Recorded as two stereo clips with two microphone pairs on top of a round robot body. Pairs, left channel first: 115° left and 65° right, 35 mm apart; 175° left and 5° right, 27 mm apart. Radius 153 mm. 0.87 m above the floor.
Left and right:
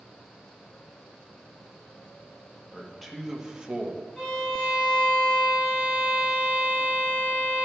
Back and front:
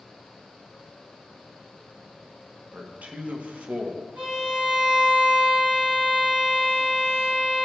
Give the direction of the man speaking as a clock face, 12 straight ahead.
11 o'clock.